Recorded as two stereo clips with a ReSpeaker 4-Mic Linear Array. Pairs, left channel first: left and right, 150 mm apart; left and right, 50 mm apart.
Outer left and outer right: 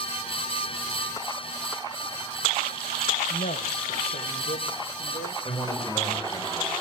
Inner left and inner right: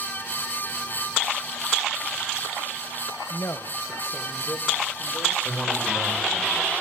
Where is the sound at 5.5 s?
35° left (ahead or behind), 5 m.